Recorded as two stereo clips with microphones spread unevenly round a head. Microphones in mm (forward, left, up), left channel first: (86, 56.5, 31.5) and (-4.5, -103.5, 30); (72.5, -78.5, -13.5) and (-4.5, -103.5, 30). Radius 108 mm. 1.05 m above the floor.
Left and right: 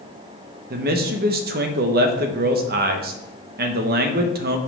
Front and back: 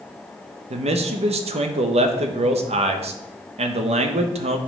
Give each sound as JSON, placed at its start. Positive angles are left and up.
{"t": 0.7, "sound": "a man speaking", "azimuth_deg": -160, "distance_m": 0.9}